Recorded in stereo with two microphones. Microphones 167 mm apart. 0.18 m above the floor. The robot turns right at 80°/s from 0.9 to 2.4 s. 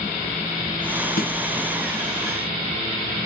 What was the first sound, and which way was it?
A snare drum, 60° left (ahead or behind).